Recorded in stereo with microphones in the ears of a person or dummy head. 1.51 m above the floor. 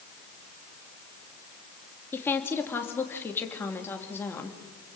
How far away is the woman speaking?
About 3 m.